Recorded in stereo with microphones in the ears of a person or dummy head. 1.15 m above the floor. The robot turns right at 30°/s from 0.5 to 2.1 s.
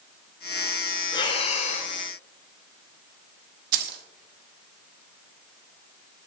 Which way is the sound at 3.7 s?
55° right (ahead or behind).